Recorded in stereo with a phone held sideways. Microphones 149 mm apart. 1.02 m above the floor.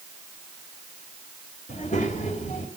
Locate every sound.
1.7 s a child speaking: 55° left (ahead or behind), 2.5 m